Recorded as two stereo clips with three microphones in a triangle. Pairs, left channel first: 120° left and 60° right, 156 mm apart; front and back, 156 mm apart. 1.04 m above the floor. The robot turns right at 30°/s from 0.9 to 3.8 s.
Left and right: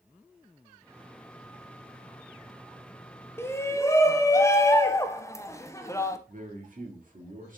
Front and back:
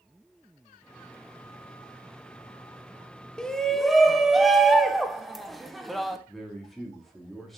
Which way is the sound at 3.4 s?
75° left.